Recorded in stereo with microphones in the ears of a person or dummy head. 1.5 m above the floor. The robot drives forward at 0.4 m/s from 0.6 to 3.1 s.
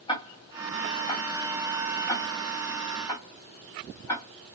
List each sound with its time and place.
0.1 s ticking: 20° left (ahead or behind), 1.4 m; by 4.2 s 10° left (ahead or behind), 2.5 m